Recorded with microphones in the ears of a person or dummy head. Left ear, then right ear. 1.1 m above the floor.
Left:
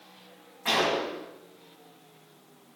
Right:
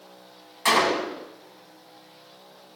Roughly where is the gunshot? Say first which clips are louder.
Right 5 dB; right.